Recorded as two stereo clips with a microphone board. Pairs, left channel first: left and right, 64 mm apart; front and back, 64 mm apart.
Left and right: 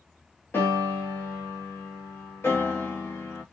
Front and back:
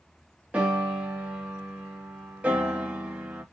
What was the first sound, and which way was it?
A piano, 120° left.